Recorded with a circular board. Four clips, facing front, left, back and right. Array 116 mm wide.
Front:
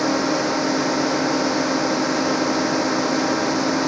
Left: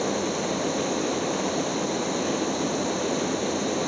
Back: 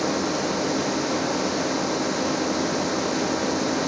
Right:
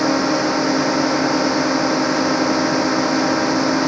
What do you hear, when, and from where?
0.0 s a drone: 65° right